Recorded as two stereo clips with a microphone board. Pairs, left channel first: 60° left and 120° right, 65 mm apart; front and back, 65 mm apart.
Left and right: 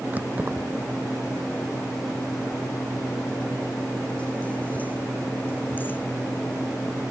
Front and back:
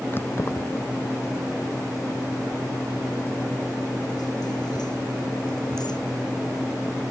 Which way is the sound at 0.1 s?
55° right.